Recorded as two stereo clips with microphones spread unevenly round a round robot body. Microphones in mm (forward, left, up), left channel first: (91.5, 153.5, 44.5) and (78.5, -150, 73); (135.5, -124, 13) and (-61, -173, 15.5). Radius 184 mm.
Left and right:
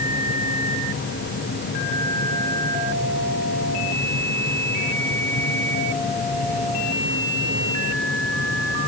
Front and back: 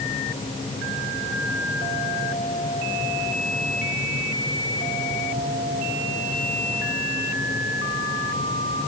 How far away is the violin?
No violin in this recording.